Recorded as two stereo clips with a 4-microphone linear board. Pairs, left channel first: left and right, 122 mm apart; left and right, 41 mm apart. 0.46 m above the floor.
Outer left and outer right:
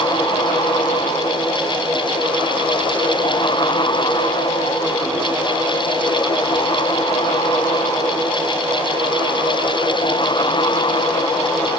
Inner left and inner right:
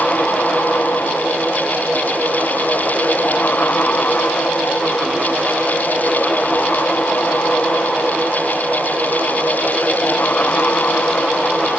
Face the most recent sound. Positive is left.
No sound to turn to.